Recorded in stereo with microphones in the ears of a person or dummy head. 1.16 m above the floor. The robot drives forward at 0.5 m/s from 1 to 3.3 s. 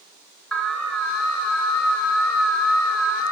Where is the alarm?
10° left (ahead or behind), 3 m; by 3.3 s 15° left (ahead or behind), 2 m.